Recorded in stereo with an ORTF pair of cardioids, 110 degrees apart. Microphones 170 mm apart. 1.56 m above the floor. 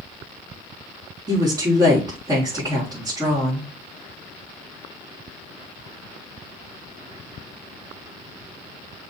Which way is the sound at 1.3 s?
25° right.